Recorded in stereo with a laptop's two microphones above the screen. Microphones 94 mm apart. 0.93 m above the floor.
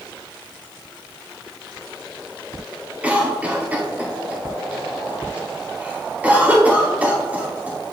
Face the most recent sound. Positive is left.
turn(degrees=-15)  # may be behind; listen again after turning